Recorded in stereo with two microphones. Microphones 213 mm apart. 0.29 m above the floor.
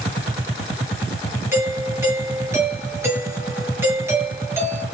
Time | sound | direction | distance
1.5 | a doorbell | 10° right (ahead or behind) | 5 m